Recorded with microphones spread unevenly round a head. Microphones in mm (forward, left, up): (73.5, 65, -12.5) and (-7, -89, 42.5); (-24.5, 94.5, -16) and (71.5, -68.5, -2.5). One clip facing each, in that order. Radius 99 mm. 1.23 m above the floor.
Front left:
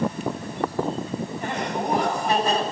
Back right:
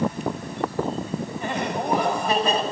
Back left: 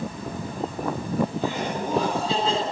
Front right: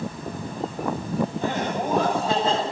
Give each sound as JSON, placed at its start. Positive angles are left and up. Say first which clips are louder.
{"t": 1.4, "sound": "laughter", "louder": "back right 2 dB, front right 1 dB", "azimuth_deg": -110, "distance_m": 9.0}